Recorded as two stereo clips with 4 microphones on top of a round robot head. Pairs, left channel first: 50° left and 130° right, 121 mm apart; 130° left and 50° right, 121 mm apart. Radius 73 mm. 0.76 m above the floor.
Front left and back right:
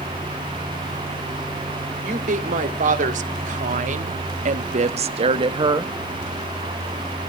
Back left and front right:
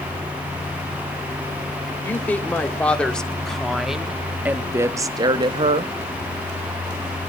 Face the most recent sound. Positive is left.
turn(degrees=-75)